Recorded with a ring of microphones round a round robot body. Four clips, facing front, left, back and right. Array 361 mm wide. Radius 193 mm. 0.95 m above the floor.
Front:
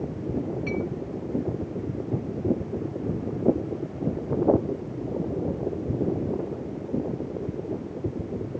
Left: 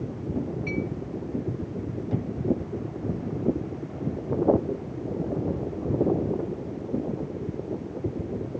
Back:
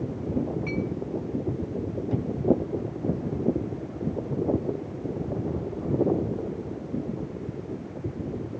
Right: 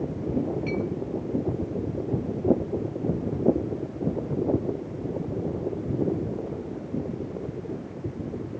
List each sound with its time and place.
0.7 s a clink: 60° right, 5.5 m